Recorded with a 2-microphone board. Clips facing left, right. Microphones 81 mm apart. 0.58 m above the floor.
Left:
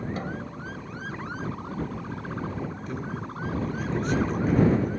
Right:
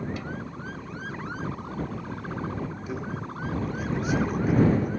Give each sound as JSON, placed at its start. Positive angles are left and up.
{"t": 0.2, "sound": "a snare drum", "side_deg": 40}
{"t": 2.9, "sound": "a man speaking", "side_deg": -5}